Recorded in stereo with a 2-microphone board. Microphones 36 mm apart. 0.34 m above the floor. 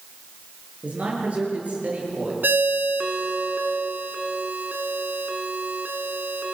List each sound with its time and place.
0.8 s a man speaking: 45° right (ahead or behind), 7.5 m
2.4 s a ringtone: 75° right (ahead or behind), 2 m